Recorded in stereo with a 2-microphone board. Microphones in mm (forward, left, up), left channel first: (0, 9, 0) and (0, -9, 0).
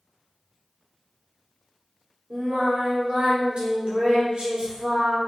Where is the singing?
75° right (ahead or behind), 2 m.